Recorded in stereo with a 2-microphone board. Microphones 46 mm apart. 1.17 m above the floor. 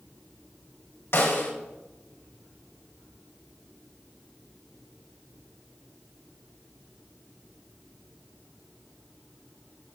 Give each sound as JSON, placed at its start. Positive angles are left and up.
{"t": 1.1, "sound": "a snare drum", "side_deg": 65, "distance_m": 3.0}